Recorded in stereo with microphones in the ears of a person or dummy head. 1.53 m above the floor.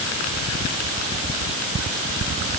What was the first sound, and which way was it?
Only background noise.